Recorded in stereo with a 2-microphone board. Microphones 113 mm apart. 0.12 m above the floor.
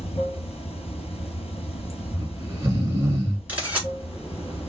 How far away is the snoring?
About 1.5 m.